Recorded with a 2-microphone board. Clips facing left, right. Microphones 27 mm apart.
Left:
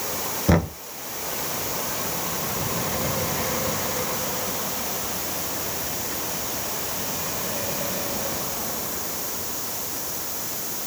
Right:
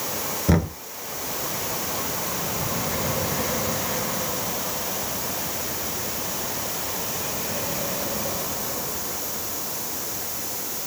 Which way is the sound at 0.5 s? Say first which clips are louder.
Left 1 dB; 15° left (ahead or behind).